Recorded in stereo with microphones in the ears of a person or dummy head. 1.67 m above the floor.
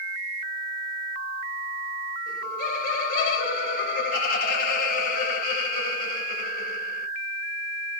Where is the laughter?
60° left (ahead or behind), 1.4 m.